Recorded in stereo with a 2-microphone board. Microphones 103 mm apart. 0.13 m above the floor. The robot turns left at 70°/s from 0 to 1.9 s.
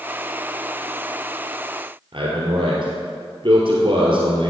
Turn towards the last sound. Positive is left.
turn(degrees=-60)  # may be behind; listen again after turning